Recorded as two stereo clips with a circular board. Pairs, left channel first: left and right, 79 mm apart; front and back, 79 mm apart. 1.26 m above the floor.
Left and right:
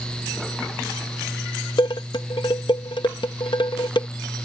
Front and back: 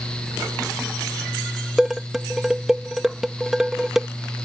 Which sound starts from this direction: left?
Dishes clattering, at 1.8 s.